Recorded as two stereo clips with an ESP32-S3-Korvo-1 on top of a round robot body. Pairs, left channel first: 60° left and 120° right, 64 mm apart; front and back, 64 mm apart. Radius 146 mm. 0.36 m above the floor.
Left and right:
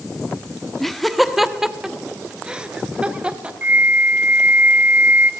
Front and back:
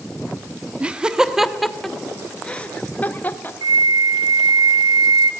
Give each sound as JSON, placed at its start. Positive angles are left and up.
{"t": 0.8, "sound": "laughter", "azimuth_deg": 145, "distance_m": 1.5}
{"t": 3.6, "sound": "a flute", "azimuth_deg": 175, "distance_m": 0.6}